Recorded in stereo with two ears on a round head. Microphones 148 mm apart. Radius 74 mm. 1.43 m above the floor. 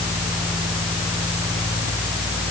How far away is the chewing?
I don't hear chewing.